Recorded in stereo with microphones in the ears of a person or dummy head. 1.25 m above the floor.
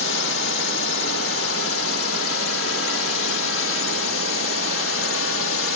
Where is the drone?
70° left (ahead or behind); by 5.8 s 65° left (ahead or behind).